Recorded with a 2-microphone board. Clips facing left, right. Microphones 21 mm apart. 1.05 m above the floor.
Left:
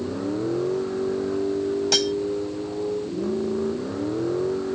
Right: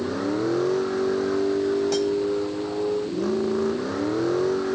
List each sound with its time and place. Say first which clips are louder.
0.0 s a vehicle: right 2 dB; 50° right (ahead or behind)
1.9 s cutlery clinking: left 2 dB; 65° left (ahead or behind)